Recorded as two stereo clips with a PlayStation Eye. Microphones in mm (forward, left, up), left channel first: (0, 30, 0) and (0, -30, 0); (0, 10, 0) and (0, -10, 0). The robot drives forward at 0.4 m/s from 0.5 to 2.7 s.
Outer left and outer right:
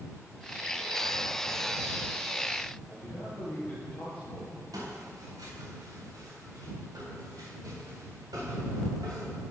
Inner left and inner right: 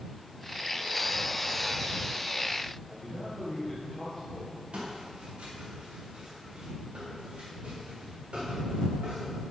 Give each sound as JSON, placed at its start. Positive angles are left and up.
{"t": 2.9, "sound": "a man speaking", "side_deg": 25, "distance_m": 2.5}
{"t": 4.7, "sound": "footsteps", "side_deg": -80, "distance_m": 4.0}